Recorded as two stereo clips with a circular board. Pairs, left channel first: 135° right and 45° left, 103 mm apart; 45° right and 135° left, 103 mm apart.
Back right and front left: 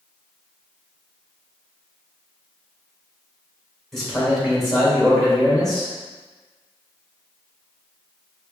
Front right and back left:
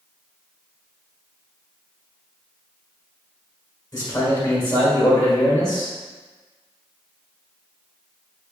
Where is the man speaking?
45° right, 1.6 m.